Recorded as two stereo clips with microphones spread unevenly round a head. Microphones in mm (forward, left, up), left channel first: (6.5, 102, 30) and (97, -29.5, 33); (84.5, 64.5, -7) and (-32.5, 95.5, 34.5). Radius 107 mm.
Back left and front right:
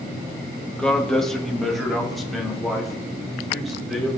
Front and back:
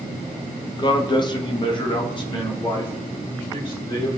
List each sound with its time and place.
0.7 s a man speaking: 40° left, 1.0 m; by 4.2 s 35° left, 4.5 m